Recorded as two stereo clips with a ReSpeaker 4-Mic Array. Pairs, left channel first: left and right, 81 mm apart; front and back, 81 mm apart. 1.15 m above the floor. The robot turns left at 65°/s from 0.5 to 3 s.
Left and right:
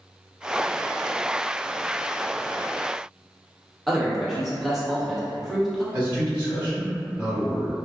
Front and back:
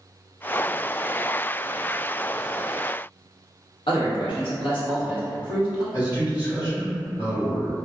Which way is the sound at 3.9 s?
Straight ahead.